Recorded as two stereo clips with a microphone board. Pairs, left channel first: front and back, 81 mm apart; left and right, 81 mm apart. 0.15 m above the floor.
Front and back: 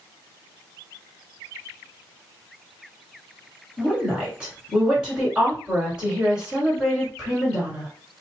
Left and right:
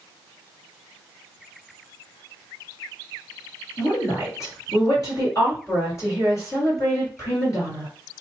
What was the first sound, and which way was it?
A woman speaking, 105° left.